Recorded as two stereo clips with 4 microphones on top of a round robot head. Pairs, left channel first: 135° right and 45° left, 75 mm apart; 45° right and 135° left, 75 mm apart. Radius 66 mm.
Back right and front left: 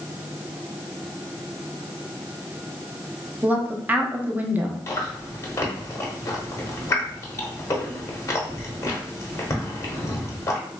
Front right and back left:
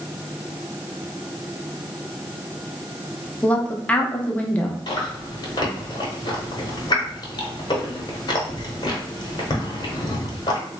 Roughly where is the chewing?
Right.